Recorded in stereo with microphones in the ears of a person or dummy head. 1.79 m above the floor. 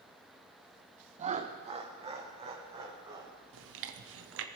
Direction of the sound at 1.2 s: 30° right (ahead or behind).